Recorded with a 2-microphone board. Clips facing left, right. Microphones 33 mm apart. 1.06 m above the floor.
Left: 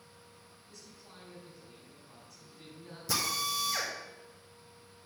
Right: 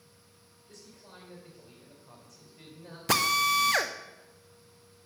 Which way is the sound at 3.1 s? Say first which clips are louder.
Right 8 dB; 60° right (ahead or behind).